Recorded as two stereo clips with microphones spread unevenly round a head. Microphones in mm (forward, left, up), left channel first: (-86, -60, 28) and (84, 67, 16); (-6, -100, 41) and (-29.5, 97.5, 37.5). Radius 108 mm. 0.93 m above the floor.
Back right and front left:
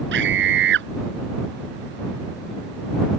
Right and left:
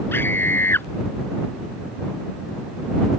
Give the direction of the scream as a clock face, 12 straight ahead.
12 o'clock.